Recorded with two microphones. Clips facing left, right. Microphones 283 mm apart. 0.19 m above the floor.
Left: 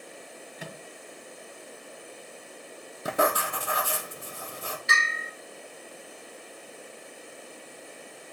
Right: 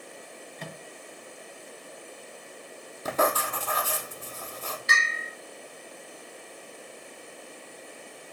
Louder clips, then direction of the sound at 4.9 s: Even; centre (ahead or behind).